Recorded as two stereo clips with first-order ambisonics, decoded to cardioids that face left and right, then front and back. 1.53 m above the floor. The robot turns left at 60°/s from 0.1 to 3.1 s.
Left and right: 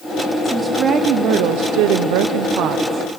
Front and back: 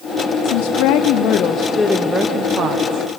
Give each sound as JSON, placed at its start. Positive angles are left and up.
{"t": 0.4, "sound": "a woman speaking", "azimuth_deg": 5, "distance_m": 0.7}